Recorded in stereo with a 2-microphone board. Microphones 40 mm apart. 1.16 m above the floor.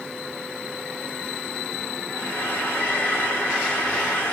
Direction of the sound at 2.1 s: 65° left (ahead or behind).